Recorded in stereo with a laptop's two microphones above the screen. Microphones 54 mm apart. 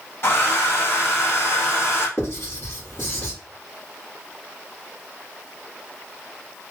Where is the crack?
I don't hear a crack.